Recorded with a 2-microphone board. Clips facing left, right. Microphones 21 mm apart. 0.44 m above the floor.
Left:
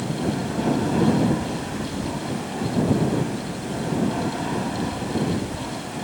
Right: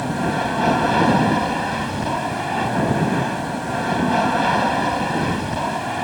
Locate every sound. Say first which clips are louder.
0.0 s an aircraft: right 4 dB; 35° right (ahead or behind)